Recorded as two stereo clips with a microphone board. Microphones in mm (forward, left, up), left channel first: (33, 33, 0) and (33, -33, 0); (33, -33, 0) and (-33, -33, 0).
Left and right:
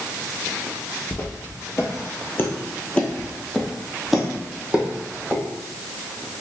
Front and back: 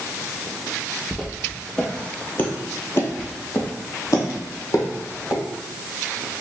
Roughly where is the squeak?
I don't hear a squeak.